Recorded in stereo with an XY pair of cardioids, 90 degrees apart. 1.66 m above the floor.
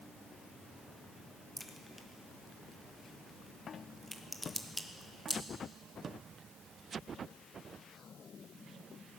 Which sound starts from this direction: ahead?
A crack, at 1.6 s.